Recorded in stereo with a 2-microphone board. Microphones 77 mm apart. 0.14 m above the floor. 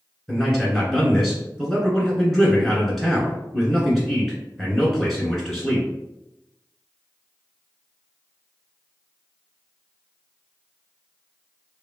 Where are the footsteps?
No footsteps in this recording.